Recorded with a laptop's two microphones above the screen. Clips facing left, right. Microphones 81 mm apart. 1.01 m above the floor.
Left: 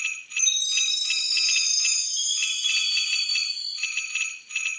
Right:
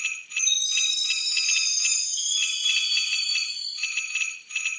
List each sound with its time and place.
0.4 s a chime: 70° left (ahead or behind), 2 m